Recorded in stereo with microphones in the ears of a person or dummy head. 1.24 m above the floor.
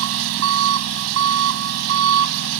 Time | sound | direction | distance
0.0 | an engine running | 80° right | ?